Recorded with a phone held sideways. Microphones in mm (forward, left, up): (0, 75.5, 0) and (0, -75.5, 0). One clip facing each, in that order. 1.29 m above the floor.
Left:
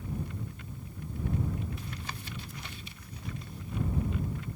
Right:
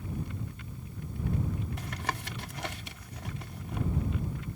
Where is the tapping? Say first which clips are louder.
Right 5 dB; 75° right (ahead or behind).